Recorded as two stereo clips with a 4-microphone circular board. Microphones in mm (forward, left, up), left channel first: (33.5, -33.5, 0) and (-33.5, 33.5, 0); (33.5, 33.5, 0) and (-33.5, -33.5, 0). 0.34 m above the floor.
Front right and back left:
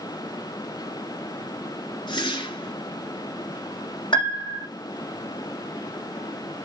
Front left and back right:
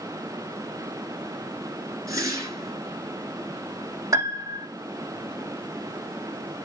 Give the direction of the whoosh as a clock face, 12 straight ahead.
3 o'clock.